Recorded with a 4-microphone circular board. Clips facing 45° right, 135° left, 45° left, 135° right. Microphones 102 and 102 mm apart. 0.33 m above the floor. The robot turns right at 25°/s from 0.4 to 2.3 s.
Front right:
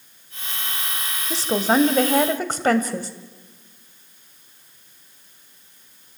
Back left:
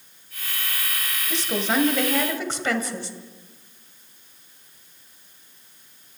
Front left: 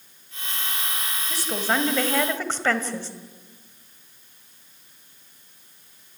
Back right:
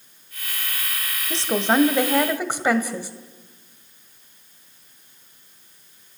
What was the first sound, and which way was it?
A woman speaking, 85° right.